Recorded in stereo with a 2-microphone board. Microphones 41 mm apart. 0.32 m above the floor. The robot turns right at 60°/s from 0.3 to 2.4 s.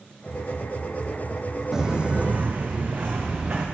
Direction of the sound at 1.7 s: 10° right (ahead or behind).